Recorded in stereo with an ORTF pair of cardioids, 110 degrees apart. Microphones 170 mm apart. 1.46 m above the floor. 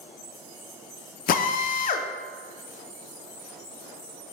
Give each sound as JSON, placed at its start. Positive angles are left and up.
{"t": 1.3, "sound": "a drill", "azimuth_deg": 50, "distance_m": 0.7}